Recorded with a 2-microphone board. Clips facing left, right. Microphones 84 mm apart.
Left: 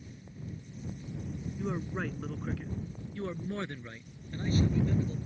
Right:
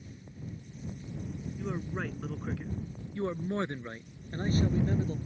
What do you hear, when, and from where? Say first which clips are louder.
1.6 s a man speaking: left 1 dB; 15° left (ahead or behind); by 5.2 s 45° right (ahead or behind)